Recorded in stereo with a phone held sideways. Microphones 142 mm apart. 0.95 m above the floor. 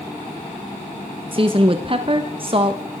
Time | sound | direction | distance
1.3 | a woman speaking | 40° right (ahead or behind) | 1.0 m